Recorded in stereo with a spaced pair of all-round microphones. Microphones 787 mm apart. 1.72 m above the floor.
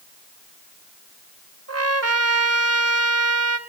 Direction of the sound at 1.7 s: 20° right (ahead or behind).